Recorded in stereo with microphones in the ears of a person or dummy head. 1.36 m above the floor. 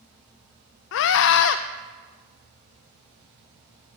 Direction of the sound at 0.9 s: 65° left (ahead or behind).